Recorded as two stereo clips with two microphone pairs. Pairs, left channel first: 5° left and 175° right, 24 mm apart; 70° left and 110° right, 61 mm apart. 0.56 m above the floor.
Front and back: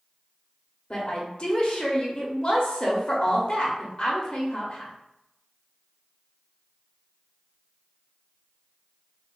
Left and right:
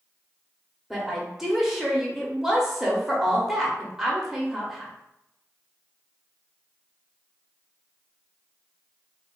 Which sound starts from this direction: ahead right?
A woman speaking, at 0.9 s.